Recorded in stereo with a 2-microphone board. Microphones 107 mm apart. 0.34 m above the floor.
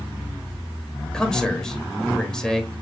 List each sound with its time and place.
1.1 s a man speaking: 5° left (ahead or behind), 0.9 m